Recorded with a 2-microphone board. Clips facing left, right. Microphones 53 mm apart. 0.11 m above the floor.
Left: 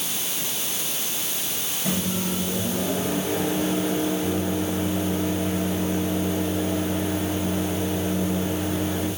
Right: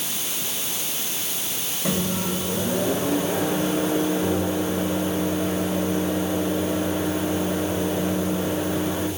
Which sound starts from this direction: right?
A microwave, at 1.9 s.